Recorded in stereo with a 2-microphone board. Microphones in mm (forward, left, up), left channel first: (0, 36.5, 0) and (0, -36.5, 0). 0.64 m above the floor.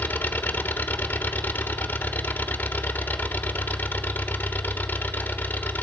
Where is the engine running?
25° left (ahead or behind), 1.3 m.